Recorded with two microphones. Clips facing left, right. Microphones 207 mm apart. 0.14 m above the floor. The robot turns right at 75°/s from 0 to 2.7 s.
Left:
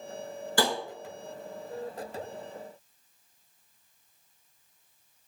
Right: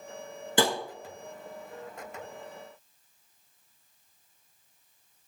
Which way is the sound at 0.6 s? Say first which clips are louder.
Right 2 dB; 20° right (ahead or behind).